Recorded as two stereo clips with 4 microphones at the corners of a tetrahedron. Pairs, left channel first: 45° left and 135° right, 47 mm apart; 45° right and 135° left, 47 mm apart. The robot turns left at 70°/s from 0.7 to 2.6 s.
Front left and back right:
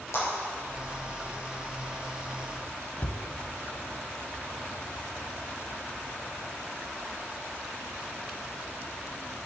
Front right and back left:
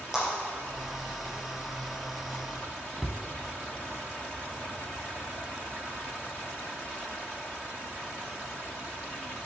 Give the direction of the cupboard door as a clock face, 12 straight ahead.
10 o'clock.